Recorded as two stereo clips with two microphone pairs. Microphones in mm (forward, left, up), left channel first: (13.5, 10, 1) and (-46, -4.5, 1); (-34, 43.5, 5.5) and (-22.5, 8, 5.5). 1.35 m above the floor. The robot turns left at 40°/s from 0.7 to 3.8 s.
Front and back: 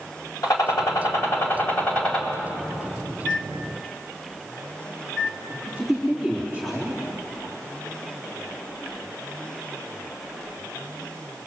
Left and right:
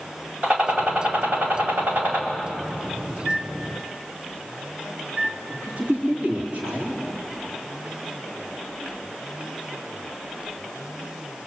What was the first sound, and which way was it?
A gunshot, 10° right.